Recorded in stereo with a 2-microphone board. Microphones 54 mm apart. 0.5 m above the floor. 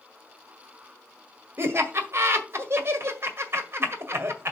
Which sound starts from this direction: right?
Laughter, at 1.6 s.